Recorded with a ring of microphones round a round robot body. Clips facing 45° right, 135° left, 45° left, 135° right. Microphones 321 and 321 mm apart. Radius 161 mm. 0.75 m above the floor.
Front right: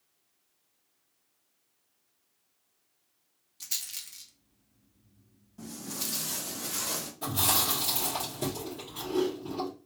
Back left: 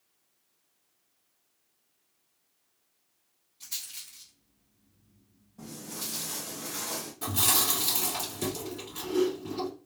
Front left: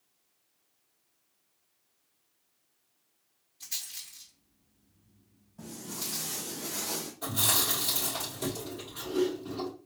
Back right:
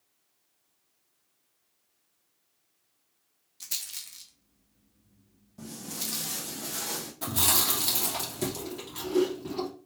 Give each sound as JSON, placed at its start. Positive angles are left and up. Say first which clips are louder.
{"t": 3.6, "sound": "a rattle", "louder": "front right 1 dB, back right 1 dB", "azimuth_deg": -90, "distance_m": 1.0}
{"t": 5.6, "sound": "footsteps", "louder": "front right 2 dB, back right 1 dB", "azimuth_deg": -110, "distance_m": 2.0}
{"t": 7.2, "sound": "chewing", "louder": "front right 1 dB, back right 4 dB", "azimuth_deg": -155, "distance_m": 2.5}